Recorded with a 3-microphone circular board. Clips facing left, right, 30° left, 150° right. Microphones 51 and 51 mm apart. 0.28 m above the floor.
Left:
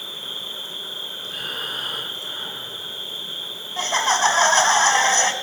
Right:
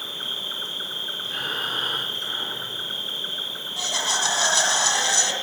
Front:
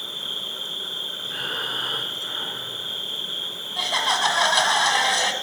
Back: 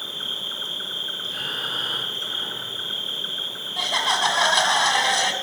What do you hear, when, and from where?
0.0 s an insect: 110° right, 3.5 m
1.2 s breathing: 35° right, 6 m
3.8 s laughter: 120° left, 1.8 m